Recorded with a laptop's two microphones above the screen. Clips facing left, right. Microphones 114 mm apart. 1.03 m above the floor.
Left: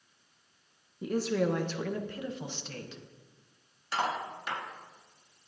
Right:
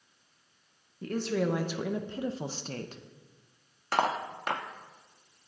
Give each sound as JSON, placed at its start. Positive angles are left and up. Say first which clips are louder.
{"t": 1.0, "sound": "a woman speaking", "louder": "left 1 dB", "side_deg": 10, "distance_m": 1.1}
{"t": 3.9, "sound": "cutlery clinking", "louder": "right 4 dB", "side_deg": -60, "distance_m": 1.0}